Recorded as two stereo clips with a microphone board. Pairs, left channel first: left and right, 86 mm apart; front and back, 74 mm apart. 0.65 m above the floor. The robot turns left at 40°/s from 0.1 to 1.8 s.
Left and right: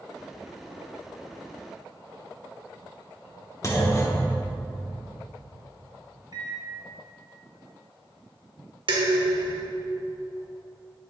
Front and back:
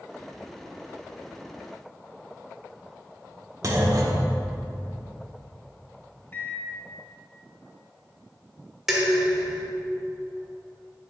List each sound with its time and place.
3.6 s a clunk: 145° left, 0.9 m
6.3 s a microwave: 60° right, 0.9 m
8.9 s dishes clattering: 95° right, 1.4 m